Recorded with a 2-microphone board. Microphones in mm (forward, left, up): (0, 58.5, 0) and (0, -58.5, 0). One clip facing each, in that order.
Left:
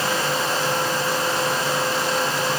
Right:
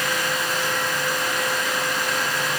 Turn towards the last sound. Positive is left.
No sound to turn to.